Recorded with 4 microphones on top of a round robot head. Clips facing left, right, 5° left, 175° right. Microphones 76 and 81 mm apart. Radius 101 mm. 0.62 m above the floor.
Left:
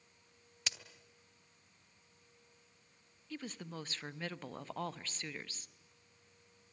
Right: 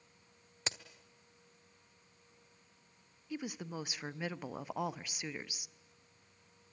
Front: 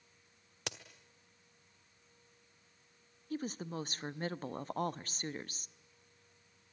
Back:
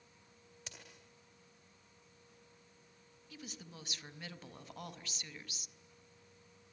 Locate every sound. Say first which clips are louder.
0.7 s a crack: right 3 dB, front 11 dB; 30° right, 1.4 m
3.3 s a woman speaking: right 4 dB, front 13 dB; 15° right, 0.9 m